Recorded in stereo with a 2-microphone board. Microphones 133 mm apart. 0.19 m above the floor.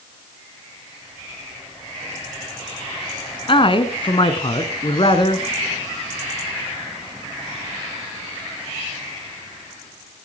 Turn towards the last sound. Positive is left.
turn(degrees=45)  # may be behind; listen again after turning